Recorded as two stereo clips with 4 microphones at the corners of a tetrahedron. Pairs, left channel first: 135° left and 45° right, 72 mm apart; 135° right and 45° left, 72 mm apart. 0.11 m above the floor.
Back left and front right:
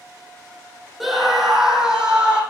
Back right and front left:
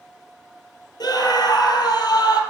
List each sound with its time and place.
1.0 s a scream: 135° right, 2.5 m; by 2.4 s 125° right, 3 m